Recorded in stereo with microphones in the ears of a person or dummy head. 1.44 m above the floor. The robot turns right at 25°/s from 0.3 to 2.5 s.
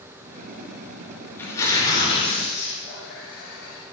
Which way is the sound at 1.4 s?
10° left (ahead or behind).